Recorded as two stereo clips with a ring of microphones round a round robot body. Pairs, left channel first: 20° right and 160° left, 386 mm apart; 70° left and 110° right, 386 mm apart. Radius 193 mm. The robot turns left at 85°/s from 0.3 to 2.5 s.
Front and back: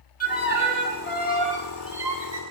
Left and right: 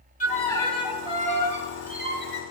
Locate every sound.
0.2 s a violin: 20° left, 1.3 m; by 2.4 s 160° right, 1.3 m